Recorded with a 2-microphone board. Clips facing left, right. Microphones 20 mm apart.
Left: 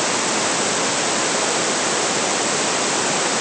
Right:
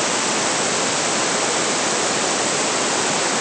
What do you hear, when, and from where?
Only background noise.